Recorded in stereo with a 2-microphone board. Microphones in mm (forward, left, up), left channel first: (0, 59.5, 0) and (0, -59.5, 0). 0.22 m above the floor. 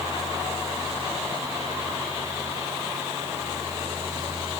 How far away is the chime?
I don't hear a chime.